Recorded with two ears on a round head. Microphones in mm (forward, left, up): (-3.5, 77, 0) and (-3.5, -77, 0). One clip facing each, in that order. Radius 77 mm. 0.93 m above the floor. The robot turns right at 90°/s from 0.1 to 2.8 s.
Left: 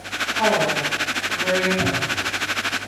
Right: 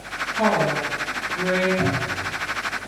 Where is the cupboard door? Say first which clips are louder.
Even; 15° left (ahead or behind), 1.4 m; by 2.3 s 25° right (ahead or behind), 1.4 m.